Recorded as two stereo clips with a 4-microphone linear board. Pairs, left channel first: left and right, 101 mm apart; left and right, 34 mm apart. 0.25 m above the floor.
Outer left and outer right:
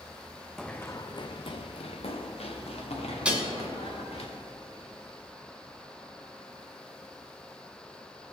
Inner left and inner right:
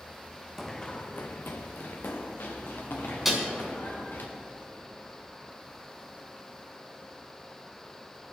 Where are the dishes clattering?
10° right (ahead or behind), 1.5 m.